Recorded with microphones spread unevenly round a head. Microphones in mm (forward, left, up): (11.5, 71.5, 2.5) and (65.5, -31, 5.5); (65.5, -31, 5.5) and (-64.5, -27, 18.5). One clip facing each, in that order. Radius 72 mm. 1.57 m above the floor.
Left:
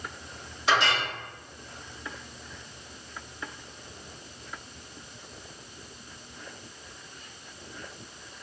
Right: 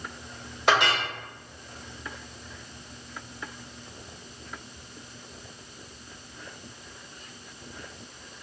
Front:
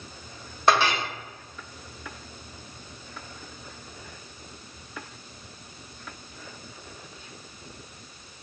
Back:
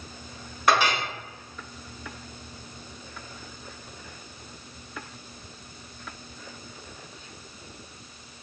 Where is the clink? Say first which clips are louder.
Right 2 dB, front 1 dB; 65° right, 1.0 m.